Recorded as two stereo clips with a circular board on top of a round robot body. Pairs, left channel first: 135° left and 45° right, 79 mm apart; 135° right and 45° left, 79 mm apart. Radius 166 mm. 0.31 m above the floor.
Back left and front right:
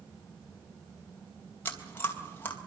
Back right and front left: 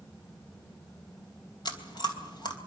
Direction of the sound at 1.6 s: 160° right.